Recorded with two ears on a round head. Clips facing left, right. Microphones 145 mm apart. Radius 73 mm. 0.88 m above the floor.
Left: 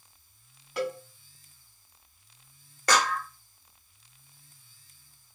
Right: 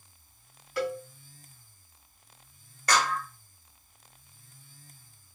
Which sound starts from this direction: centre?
A cowbell, at 0.8 s.